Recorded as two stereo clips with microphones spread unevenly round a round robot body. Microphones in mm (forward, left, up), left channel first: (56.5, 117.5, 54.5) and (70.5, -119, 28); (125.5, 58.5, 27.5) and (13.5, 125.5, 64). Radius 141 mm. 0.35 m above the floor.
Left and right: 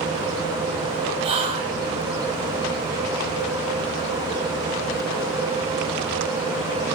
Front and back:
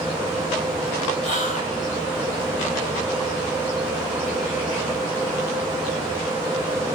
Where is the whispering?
145° right, 2.0 m.